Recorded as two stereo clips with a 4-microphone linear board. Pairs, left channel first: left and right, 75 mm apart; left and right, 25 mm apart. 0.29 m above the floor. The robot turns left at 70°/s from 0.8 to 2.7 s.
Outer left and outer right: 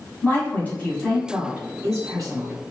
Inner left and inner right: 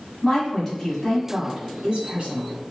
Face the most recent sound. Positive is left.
turn(degrees=-110)